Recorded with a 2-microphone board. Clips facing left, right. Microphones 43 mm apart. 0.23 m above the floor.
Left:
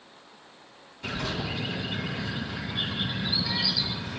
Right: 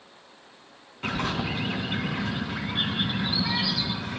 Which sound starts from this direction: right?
A bird, at 1.0 s.